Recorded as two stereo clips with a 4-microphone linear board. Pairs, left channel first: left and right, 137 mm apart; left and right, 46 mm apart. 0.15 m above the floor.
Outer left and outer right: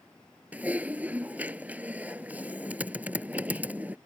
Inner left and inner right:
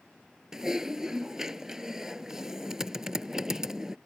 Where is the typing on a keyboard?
10° right (ahead or behind).